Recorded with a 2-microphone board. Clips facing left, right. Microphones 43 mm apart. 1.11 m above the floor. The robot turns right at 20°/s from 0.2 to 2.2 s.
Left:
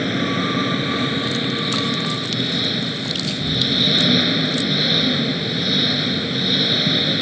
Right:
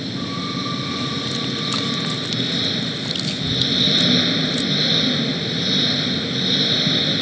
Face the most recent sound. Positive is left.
turn(degrees=170)